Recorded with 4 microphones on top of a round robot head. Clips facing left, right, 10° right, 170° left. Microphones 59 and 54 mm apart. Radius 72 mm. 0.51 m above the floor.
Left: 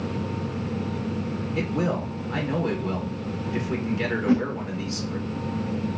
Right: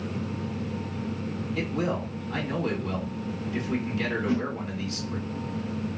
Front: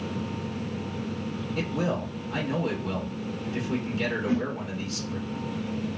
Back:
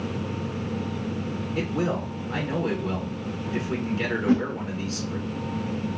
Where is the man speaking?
140° left, 2 m.